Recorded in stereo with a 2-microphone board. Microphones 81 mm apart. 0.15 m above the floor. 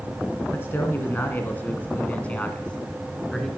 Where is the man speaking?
30° left (ahead or behind), 1.5 m; by 3.5 s 5° left (ahead or behind), 1.5 m.